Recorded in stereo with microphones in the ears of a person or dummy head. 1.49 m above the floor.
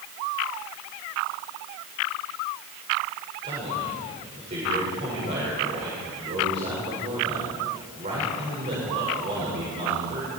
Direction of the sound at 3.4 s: 40° right (ahead or behind).